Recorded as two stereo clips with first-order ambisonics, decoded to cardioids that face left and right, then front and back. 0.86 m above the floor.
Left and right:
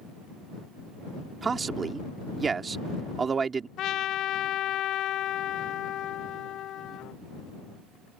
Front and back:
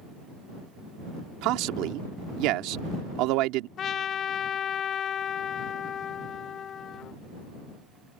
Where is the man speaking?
160° right.